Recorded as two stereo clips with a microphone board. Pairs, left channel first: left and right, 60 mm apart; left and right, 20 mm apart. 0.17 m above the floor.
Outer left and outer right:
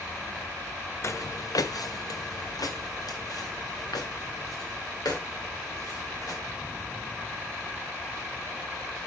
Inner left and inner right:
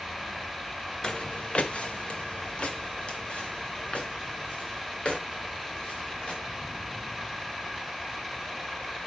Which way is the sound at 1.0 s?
45° left (ahead or behind).